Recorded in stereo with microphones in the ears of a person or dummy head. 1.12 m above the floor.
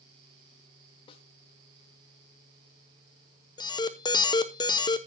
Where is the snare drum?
30° left (ahead or behind), 1.6 m.